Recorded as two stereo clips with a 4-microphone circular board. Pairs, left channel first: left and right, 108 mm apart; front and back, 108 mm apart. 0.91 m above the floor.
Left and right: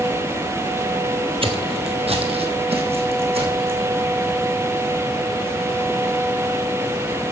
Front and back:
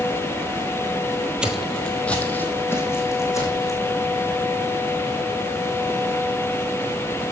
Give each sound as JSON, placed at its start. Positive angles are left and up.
{"t": 1.4, "sound": "footsteps", "azimuth_deg": -100, "distance_m": 1.4}